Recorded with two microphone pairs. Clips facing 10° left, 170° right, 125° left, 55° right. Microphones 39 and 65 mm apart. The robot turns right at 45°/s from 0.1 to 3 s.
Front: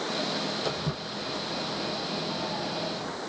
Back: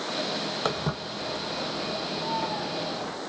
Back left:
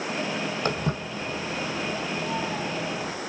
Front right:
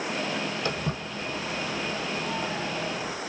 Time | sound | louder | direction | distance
0.7 | footsteps | back 2 dB, back left 3 dB | 165° left | 1.8 m